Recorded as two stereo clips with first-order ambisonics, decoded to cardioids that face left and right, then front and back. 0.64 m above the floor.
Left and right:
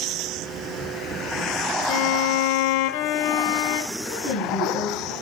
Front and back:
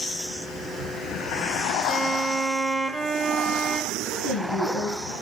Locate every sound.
1.9 s a violin: 95° left, 0.6 m
4.0 s a woman speaking: 25° left, 9 m